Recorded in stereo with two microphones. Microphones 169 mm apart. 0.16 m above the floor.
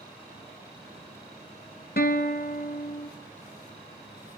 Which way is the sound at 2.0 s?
65° left (ahead or behind).